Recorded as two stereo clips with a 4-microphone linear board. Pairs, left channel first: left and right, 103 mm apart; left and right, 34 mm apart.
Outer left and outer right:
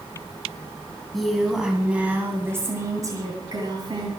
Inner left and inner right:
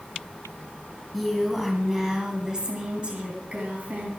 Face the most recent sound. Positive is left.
turn(degrees=-50)  # may be behind; listen again after turning